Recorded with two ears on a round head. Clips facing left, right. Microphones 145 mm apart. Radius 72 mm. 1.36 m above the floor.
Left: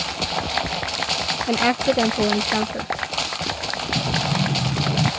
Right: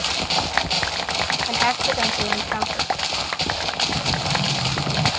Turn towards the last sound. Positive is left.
turn(degrees=20)  # may be behind; listen again after turning